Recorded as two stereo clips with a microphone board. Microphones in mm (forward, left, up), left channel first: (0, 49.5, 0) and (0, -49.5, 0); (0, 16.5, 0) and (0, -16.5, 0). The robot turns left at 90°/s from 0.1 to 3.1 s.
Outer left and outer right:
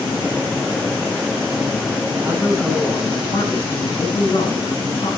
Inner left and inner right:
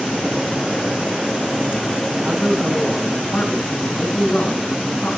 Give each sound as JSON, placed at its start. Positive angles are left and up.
{"t": 2.1, "sound": "a man speaking", "azimuth_deg": -140, "distance_m": 7.5}